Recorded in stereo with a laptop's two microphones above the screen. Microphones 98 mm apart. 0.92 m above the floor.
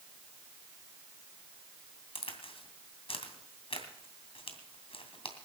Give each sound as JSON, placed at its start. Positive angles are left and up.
{"t": 2.1, "sound": "a crack", "side_deg": 75, "distance_m": 2.5}